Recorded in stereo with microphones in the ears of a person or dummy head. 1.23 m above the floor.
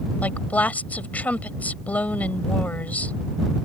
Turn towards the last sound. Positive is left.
turn(degrees=10)  # may be behind; listen again after turning